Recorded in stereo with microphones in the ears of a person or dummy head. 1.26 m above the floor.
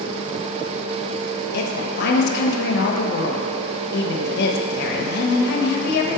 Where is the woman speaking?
60° left (ahead or behind), 1.1 m.